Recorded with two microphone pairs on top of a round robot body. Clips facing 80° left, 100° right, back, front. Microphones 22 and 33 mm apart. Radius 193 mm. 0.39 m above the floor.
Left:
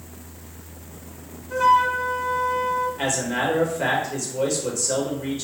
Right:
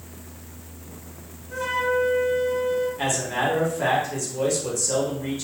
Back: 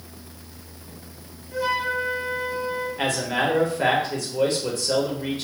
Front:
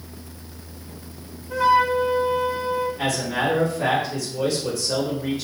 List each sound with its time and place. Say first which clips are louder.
1.5 s a flute: left 6 dB, front 7 dB; 15° left, 1.1 m
3.0 s a man speaking: even, even; 150° left, 2.5 m